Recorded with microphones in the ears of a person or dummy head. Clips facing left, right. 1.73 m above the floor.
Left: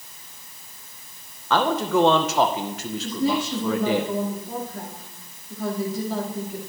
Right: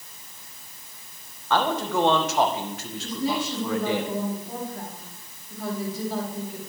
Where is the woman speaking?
65° left (ahead or behind), 5 m.